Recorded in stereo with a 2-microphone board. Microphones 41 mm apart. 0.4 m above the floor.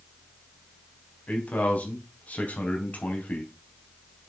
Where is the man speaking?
40° left (ahead or behind), 3.5 m.